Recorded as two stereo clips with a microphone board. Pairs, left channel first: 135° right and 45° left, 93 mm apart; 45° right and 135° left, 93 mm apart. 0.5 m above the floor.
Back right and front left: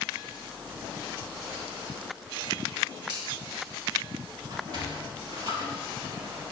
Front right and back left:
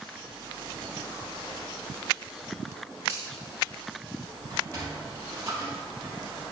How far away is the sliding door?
About 4 m.